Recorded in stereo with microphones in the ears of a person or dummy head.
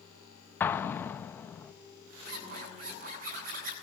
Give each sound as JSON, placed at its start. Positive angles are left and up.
{"t": 0.6, "sound": "an explosion", "side_deg": 15, "distance_m": 0.9}
{"t": 2.2, "sound": "a zipper", "side_deg": -50, "distance_m": 7.5}